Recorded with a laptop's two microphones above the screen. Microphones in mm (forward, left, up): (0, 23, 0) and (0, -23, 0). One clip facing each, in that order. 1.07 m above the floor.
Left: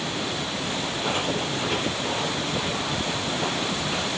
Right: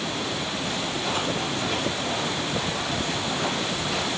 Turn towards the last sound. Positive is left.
turn(degrees=20)  # may be behind; listen again after turning